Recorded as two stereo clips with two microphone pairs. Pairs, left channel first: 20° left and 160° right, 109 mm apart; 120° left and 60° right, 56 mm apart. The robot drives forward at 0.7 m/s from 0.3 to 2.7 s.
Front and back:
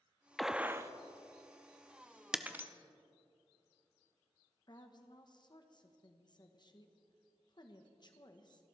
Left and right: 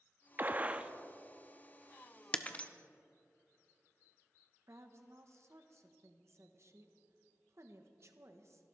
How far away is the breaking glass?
About 0.7 m.